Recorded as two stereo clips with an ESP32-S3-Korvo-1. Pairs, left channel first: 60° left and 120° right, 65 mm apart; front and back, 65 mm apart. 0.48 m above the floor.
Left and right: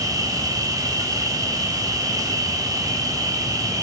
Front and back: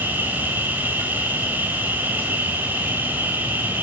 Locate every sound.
0.0 s an insect: 120° right, 3.5 m